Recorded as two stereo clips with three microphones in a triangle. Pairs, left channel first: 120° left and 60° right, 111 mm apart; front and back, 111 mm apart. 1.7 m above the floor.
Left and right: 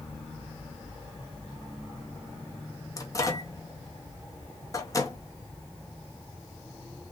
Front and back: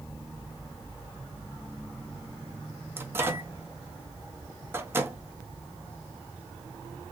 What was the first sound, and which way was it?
A microwave, 135° left.